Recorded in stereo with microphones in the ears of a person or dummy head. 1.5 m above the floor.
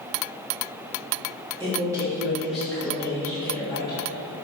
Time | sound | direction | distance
1.6 | a man speaking | 25° right (ahead or behind) | 2 m